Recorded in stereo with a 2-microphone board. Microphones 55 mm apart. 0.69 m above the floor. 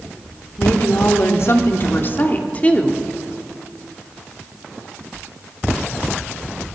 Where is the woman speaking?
70° left (ahead or behind), 1.7 m; by 3.0 s 20° left (ahead or behind), 1.4 m.